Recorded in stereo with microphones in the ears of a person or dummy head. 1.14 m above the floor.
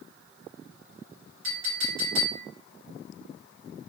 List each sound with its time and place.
1.4 s a clink: 75° right (ahead or behind), 1.6 m